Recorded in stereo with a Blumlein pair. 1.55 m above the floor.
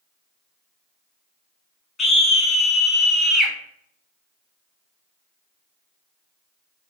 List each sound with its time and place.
2.0 s a scream: 15° left, 1.1 m